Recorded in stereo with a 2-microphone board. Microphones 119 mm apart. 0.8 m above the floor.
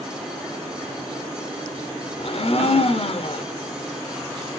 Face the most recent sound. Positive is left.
turn(degrees=60)  # may be behind; listen again after turning